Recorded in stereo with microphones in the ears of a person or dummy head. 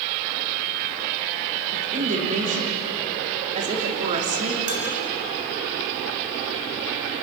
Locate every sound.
1.7 s a woman speaking: 35° right (ahead or behind), 3 m
4.7 s dishes clattering: 35° right (ahead or behind), 5.5 m